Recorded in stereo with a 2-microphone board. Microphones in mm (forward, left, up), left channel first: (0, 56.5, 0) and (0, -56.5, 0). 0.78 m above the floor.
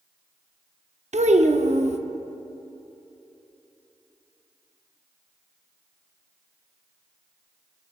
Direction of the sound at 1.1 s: 75° right (ahead or behind).